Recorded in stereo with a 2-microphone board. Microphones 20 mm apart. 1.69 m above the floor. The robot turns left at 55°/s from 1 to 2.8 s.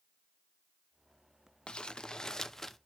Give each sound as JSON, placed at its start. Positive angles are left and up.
{"t": 1.7, "sound": "crumpling", "azimuth_deg": 70, "distance_m": 0.7}